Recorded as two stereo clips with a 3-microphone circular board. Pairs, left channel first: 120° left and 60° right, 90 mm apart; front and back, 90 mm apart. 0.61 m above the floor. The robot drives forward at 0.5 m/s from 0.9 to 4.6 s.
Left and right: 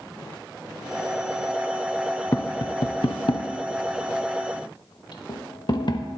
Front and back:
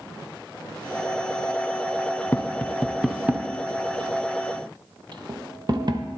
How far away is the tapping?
About 0.7 m.